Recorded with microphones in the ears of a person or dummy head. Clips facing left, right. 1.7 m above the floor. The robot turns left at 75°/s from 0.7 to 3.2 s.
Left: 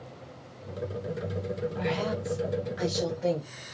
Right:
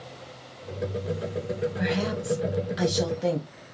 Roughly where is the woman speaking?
Ahead.